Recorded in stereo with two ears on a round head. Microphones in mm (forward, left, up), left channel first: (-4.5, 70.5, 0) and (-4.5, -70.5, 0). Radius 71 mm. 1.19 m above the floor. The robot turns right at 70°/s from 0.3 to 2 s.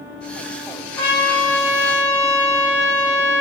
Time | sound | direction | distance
1.0 | a trumpet | 10° left | 5.5 m